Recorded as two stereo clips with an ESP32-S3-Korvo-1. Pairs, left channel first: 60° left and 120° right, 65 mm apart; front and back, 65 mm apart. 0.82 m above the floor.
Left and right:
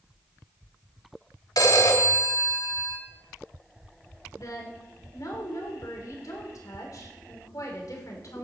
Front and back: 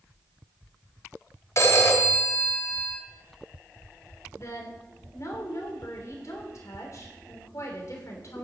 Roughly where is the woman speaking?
Ahead left.